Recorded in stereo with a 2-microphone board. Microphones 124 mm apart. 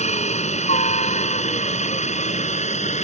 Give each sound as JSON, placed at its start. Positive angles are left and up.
{"t": 0.0, "sound": "a helicopter", "side_deg": 70}